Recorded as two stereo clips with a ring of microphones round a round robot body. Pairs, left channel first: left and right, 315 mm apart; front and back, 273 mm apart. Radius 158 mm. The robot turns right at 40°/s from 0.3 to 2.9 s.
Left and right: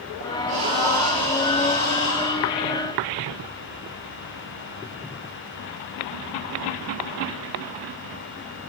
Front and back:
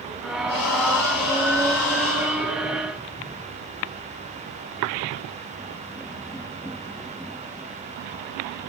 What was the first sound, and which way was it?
Breathing, 25° right.